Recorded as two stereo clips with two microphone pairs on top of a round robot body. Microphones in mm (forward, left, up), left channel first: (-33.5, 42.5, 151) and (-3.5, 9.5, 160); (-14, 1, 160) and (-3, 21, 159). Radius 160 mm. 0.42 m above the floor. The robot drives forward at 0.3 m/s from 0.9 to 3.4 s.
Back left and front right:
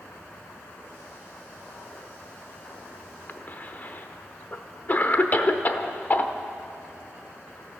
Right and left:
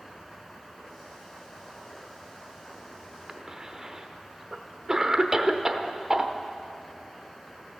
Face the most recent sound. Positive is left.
turn(degrees=125)